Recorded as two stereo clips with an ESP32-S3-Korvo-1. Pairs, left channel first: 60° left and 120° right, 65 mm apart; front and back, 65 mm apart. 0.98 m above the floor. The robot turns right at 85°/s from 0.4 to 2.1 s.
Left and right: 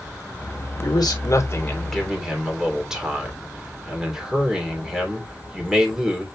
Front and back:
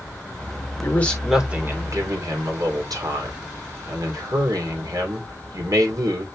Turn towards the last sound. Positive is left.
turn(degrees=160)